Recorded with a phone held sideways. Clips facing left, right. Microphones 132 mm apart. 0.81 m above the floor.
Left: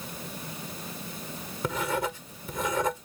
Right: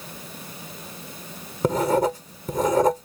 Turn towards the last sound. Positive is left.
turn(degrees=-40)  # may be behind; listen again after turning